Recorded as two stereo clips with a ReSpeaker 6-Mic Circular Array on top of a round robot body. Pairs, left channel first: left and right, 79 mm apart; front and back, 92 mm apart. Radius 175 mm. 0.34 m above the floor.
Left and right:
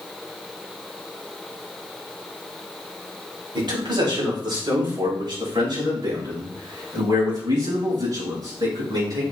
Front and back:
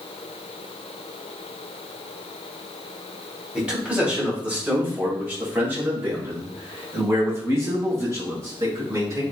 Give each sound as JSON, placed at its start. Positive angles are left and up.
{"t": 3.5, "sound": "a man speaking", "azimuth_deg": -105, "distance_m": 3.5}